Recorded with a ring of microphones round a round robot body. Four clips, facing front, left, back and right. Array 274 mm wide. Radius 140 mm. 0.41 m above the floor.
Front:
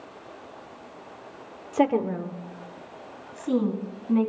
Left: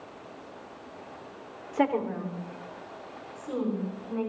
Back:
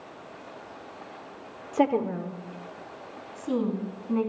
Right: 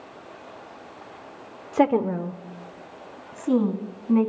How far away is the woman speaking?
About 0.9 m.